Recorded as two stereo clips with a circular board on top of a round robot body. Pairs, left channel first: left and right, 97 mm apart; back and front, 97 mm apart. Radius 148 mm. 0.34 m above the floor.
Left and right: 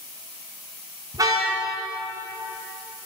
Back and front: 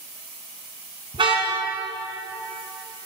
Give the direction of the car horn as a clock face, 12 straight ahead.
1 o'clock.